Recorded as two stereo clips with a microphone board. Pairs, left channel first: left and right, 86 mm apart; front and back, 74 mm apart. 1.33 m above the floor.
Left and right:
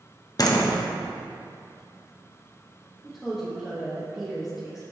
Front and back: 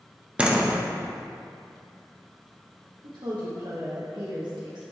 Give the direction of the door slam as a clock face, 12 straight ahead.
8 o'clock.